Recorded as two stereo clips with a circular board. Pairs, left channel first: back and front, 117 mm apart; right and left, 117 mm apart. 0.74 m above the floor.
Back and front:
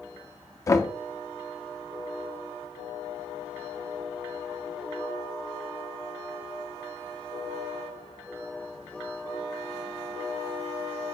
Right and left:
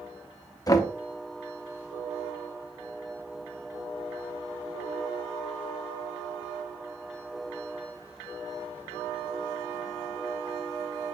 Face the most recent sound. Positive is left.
turn(degrees=-130)